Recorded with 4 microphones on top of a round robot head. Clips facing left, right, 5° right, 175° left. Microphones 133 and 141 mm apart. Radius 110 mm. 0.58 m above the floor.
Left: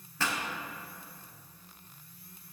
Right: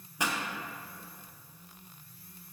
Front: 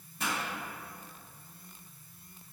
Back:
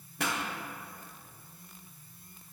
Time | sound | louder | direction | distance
0.2 | a pop | right 1 dB, back 2 dB | 165° right | 1.1 m